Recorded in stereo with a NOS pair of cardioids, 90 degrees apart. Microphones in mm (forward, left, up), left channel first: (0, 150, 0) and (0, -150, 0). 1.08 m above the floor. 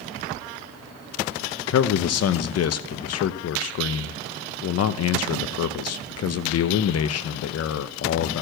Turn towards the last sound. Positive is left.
turn(degrees=55)